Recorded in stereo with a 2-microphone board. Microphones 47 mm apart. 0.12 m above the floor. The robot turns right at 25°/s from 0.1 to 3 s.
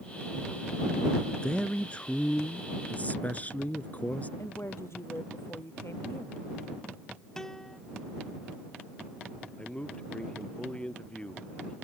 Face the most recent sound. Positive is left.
turn(degrees=20)  # may be behind; listen again after turning